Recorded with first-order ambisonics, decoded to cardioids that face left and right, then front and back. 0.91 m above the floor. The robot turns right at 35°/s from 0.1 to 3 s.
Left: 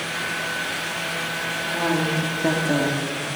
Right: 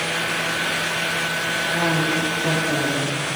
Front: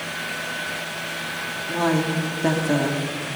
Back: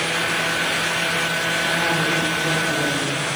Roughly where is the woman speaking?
Ahead.